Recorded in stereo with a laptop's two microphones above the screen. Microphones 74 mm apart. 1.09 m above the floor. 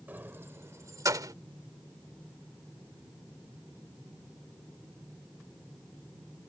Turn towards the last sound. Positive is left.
turn(degrees=-60)  # may be behind; listen again after turning